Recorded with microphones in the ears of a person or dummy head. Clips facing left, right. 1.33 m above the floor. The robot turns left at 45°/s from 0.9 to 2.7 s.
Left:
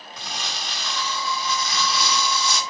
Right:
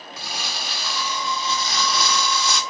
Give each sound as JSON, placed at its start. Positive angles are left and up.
{"t": 0.2, "sound": "crumpling", "azimuth_deg": -5, "distance_m": 1.7}